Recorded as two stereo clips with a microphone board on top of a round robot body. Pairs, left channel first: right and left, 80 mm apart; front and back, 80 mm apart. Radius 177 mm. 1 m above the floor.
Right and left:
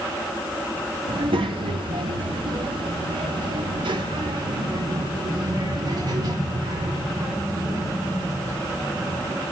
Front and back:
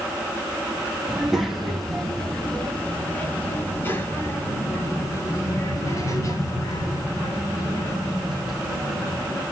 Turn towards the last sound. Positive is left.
turn(degrees=40)